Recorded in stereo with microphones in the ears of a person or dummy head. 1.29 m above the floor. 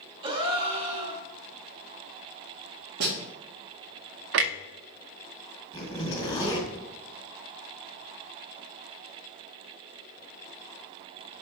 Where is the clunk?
60° right (ahead or behind), 0.5 m.